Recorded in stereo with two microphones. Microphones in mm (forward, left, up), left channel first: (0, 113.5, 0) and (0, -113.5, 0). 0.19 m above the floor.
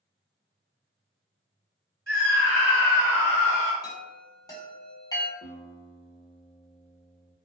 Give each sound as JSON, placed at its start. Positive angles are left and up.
{"t": 2.1, "sound": "a scream", "side_deg": 40, "distance_m": 1.6}
{"t": 3.8, "sound": "a chime", "side_deg": 15, "distance_m": 1.0}
{"t": 5.4, "sound": "a guitar", "side_deg": 45, "distance_m": 0.9}